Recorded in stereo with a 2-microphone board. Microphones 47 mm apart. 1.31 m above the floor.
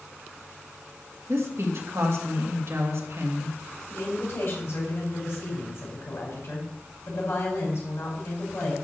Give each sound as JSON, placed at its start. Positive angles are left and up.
{"t": 1.3, "sound": "a woman speaking", "side_deg": -65, "distance_m": 2.5}
{"t": 3.9, "sound": "a woman speaking", "side_deg": 65, "distance_m": 4.5}